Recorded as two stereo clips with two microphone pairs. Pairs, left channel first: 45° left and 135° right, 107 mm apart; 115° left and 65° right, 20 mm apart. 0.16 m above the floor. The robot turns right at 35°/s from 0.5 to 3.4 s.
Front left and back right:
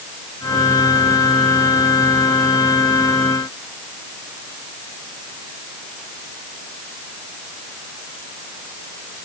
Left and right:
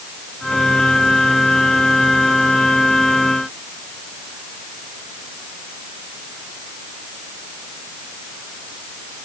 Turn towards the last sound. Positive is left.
No sound to turn to.